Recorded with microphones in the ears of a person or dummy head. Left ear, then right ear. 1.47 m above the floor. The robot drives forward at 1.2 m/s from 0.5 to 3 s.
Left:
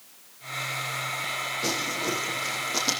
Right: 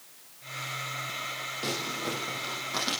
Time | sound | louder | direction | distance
1.6 | crumpling | left 3 dB | centre (ahead or behind) | 8.5 m